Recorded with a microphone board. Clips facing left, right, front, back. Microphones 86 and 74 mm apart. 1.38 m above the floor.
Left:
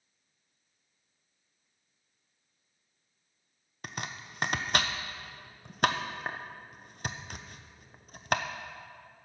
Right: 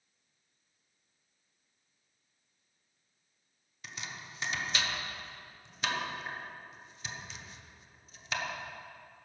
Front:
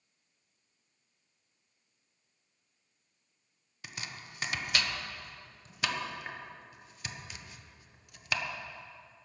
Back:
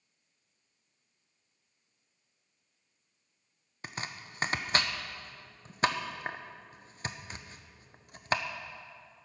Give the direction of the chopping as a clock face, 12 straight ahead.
8 o'clock.